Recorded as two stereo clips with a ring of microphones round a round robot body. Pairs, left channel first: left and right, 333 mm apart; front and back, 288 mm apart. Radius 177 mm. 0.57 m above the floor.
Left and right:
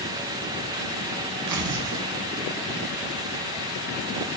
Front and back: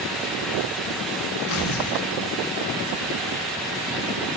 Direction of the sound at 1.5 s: 50° right.